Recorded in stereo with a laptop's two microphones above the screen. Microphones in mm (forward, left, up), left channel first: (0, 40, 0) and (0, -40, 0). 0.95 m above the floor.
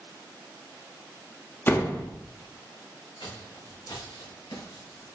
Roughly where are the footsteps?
Left.